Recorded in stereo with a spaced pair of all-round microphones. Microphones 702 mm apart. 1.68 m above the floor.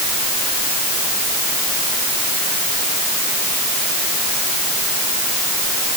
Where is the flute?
No flute in this recording.